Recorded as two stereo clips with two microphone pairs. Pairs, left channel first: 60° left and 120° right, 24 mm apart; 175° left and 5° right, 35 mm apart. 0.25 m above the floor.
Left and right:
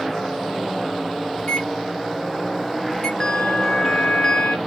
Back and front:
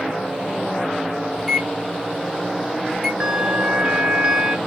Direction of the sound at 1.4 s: 115° left.